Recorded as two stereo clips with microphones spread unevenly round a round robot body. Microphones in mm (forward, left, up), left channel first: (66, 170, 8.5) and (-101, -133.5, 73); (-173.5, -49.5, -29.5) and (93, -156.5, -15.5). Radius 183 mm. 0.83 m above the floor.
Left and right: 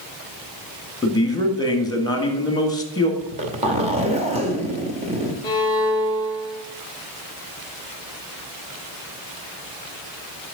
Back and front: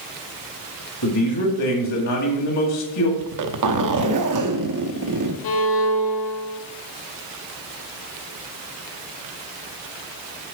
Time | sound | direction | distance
1.0 | a man speaking | 130° left | 1.8 m
3.2 | a zipper | 45° right | 0.9 m
5.4 | a violin | 140° left | 1.5 m